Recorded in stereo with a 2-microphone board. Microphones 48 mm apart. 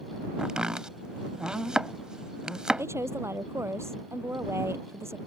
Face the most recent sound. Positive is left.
turn(degrees=-65)  # may be behind; listen again after turning